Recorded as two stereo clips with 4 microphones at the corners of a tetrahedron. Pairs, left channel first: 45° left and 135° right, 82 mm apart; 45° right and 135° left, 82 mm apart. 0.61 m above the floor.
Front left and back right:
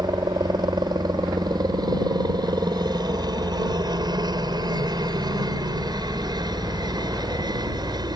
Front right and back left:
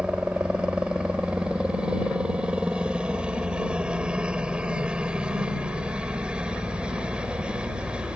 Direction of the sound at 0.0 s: 150° right.